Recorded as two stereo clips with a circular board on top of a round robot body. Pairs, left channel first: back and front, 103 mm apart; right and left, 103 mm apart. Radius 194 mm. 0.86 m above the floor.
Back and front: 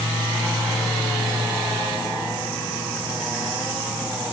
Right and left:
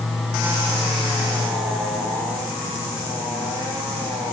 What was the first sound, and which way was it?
Only background noise.